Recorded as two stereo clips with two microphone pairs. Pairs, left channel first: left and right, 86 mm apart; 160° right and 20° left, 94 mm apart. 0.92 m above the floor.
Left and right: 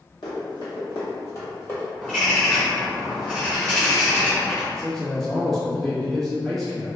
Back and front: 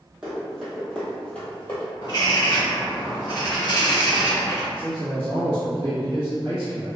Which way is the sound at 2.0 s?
170° left.